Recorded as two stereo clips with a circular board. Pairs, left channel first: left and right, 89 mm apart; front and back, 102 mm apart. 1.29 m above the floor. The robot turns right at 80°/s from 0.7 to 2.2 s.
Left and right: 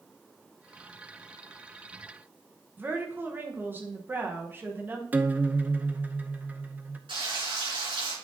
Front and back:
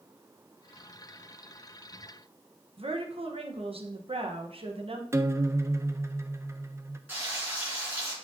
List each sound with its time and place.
2.8 s a woman speaking: 160° right, 1.1 m
5.1 s a guitar: 145° right, 0.5 m
7.1 s frying: 110° right, 4.5 m